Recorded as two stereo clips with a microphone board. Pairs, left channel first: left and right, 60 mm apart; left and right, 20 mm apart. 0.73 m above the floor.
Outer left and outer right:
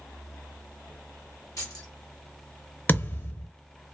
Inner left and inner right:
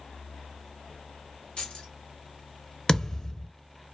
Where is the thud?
35° left (ahead or behind), 0.6 m.